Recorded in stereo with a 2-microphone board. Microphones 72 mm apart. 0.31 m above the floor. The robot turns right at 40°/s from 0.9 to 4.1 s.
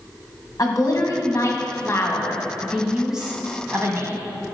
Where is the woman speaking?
100° left, 2 m; by 4.3 s 130° right, 2 m.